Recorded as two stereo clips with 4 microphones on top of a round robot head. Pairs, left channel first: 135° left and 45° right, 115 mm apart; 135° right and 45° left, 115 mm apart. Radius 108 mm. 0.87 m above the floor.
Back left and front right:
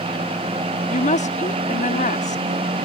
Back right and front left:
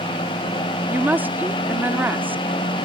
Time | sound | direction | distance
0.9 | a woman speaking | 120° left | ?